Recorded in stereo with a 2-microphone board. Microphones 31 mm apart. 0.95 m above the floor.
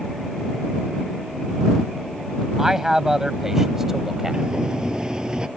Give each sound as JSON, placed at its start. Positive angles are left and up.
{"t": 2.6, "sound": "a man speaking", "side_deg": -15}
{"t": 4.3, "sound": "a sliding door", "side_deg": -25}